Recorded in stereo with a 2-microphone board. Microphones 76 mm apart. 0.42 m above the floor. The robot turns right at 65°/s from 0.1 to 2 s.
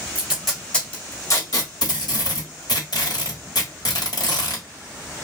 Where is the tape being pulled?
20° right (ahead or behind), 1.4 m; by 4.6 s 65° left (ahead or behind), 1.4 m.